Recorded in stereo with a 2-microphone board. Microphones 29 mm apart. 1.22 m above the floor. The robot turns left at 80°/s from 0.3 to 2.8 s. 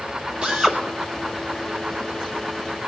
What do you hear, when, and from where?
0.4 s a drill: 150° right, 3.5 m; by 0.8 s straight behind, 3.5 m